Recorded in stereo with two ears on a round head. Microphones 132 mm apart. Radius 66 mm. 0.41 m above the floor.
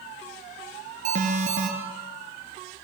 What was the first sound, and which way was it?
An alarm, 55° right (ahead or behind).